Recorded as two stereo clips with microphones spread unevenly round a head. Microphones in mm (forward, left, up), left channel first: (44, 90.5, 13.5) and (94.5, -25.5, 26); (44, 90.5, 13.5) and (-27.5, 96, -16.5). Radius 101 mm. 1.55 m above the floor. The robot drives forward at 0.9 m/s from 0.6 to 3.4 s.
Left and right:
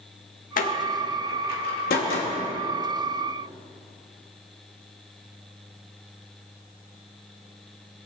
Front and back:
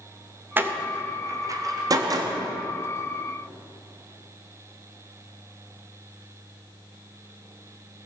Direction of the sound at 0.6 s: 105° left.